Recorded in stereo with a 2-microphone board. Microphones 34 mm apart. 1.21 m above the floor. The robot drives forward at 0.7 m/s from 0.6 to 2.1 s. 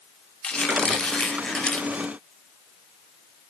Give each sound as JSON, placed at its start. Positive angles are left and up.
{"t": 0.4, "sound": "a squeak", "side_deg": 25, "distance_m": 1.2}